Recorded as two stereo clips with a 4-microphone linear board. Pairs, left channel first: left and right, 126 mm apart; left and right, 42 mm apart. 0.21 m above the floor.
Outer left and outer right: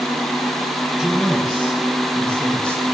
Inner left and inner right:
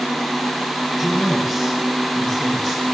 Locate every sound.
1.0 s a man speaking: centre (ahead or behind), 8 m; by 2.8 s 10° left (ahead or behind), 8 m